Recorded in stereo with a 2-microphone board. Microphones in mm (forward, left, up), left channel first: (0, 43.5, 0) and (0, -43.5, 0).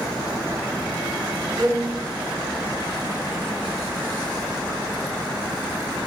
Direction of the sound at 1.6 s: 45° right (ahead or behind).